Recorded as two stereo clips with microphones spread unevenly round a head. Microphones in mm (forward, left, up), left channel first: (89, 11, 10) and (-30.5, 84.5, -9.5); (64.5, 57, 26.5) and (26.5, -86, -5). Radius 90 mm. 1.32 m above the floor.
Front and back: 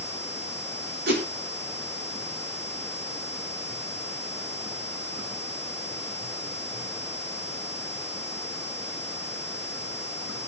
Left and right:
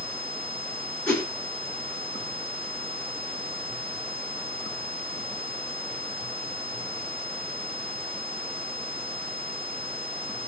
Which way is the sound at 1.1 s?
160° left.